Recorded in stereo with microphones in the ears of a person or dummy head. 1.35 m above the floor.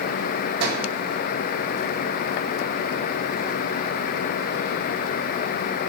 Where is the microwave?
70° right (ahead or behind), 2.0 m.